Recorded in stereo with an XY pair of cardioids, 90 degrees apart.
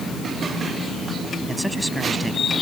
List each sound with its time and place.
1.5 s a man speaking: 5° right; by 2.5 s 10° right